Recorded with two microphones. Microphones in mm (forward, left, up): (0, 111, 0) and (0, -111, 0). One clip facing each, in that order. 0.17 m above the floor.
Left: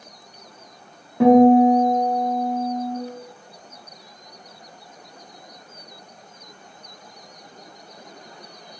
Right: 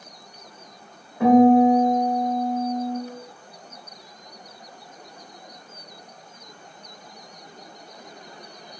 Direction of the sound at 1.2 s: 80° left.